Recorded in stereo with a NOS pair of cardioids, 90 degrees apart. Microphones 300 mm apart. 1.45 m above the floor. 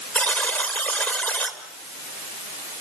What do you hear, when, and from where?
0.1 s a buzzer: 5° left, 3.5 m